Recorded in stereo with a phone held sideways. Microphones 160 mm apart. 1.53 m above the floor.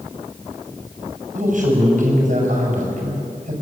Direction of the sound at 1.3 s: 60° right (ahead or behind).